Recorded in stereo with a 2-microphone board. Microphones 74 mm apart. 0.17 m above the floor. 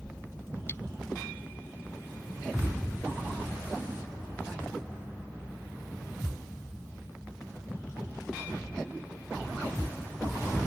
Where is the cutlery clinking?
35° left (ahead or behind).